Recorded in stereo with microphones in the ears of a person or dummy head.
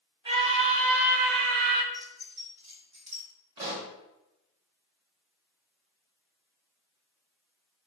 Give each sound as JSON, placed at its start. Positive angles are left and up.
{"t": 0.2, "sound": "a scream", "side_deg": -30, "distance_m": 1.5}
{"t": 1.9, "sound": "keys jangling", "side_deg": -45, "distance_m": 3.5}
{"t": 3.6, "sound": "a pop", "side_deg": -30, "distance_m": 1.8}